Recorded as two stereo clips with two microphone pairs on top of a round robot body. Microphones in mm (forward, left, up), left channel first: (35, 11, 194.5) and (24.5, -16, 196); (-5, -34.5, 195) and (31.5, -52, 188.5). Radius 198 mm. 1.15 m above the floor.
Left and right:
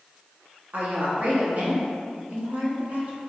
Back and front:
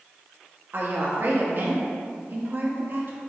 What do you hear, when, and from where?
0.7 s a woman speaking: 65° right, 0.7 m